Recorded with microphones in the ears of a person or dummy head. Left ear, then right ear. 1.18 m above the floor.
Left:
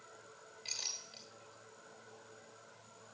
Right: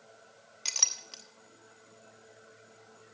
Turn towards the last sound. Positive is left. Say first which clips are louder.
# right 12 dB
turn(degrees=-45)  # may be behind; listen again after turning